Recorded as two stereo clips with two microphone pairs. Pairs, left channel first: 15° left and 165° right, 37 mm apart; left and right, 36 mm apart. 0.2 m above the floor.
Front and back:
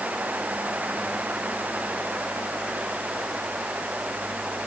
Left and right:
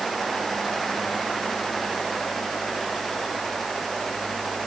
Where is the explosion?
I don't hear an explosion.